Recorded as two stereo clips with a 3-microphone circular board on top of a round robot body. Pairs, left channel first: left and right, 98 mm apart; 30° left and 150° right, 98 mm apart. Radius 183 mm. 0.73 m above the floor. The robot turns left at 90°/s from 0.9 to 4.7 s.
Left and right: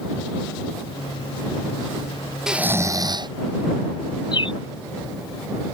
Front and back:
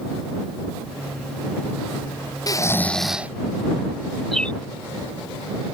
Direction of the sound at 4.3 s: 120° left.